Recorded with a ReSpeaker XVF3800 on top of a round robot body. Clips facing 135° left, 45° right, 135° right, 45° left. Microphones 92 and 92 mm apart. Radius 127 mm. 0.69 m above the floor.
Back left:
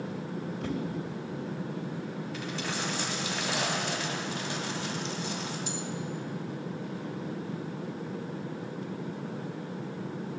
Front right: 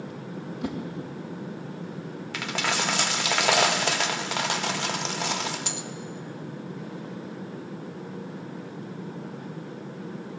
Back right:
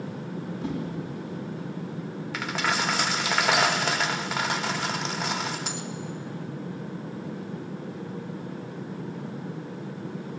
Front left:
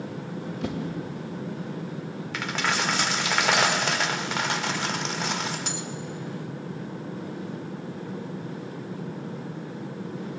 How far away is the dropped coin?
About 0.5 m.